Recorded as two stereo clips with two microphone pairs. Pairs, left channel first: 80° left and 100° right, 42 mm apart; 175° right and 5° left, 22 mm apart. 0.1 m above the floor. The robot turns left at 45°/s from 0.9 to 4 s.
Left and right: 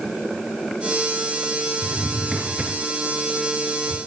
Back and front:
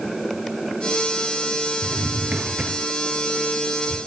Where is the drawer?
5° right, 3.5 m; by 4.0 s 100° right, 3.5 m.